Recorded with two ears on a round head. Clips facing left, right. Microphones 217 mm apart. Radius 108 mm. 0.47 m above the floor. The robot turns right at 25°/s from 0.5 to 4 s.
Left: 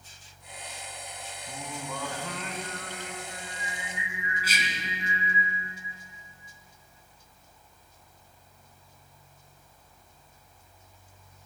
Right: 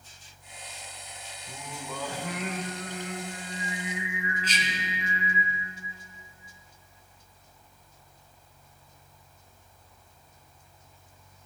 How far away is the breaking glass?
No breaking glass in this recording.